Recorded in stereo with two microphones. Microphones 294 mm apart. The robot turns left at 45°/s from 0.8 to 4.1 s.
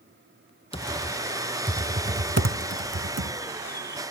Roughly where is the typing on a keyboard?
Centre.